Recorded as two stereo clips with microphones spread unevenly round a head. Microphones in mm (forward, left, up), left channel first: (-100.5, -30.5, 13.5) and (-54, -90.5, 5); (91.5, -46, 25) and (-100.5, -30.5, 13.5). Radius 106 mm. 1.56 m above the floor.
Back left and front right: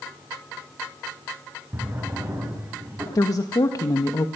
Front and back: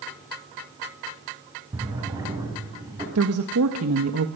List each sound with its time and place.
1.7 s a drawer: 115° right, 8.5 m
3.1 s a woman speaking: 160° left, 1.8 m